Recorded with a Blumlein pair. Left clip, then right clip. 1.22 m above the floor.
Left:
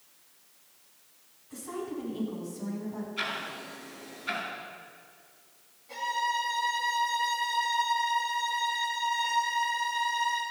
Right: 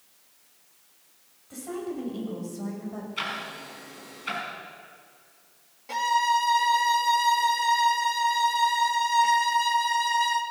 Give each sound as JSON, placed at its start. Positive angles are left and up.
{"t": 1.5, "sound": "a woman speaking", "azimuth_deg": -30, "distance_m": 6.0}
{"t": 3.2, "sound": "ticking", "azimuth_deg": -70, "distance_m": 5.0}
{"t": 5.9, "sound": "a violin", "azimuth_deg": -35, "distance_m": 1.4}